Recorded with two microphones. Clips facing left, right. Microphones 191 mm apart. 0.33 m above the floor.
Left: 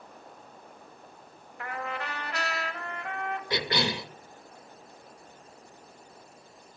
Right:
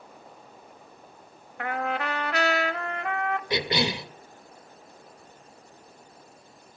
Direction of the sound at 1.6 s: 70° right (ahead or behind).